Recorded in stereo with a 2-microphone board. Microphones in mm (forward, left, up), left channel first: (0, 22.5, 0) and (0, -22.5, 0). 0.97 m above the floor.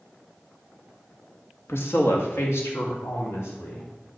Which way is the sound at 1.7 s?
65° left (ahead or behind).